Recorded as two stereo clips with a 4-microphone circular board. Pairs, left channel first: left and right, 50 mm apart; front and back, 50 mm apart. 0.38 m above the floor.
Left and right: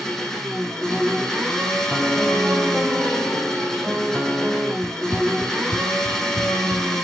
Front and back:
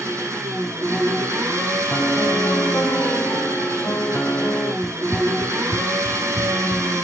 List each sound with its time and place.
0.0 s an engine running: 175° left, 6.5 m
1.9 s a piano: 10° right, 2.5 m
4.8 s running footsteps: 100° right, 0.8 m; by 7.0 s 110° right, 2 m